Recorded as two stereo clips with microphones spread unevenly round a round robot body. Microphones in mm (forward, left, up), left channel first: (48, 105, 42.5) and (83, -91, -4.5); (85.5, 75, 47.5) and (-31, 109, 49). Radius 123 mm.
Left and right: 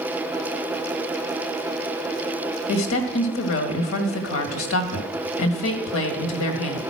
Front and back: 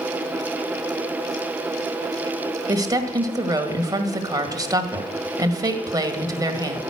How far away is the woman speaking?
About 1.8 m.